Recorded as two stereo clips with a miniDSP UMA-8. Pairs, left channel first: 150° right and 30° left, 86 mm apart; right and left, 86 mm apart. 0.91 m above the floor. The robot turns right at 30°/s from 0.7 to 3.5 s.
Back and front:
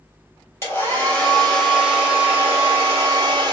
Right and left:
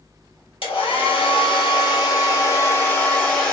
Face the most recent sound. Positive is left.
turn(degrees=-5)